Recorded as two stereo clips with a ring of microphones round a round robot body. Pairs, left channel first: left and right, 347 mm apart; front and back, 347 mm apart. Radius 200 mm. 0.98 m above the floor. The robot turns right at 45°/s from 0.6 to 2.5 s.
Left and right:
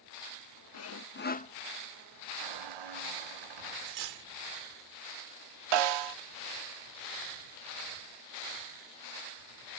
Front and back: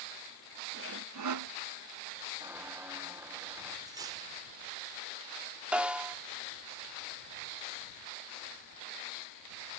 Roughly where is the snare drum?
Right.